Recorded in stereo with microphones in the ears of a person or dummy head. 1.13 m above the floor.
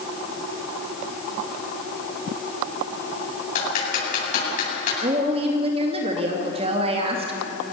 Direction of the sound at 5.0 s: 40° right (ahead or behind).